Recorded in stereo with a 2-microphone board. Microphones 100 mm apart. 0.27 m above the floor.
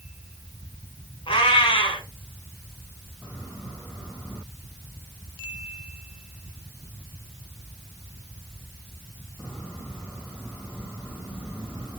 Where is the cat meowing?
70° left (ahead or behind), 1.7 m.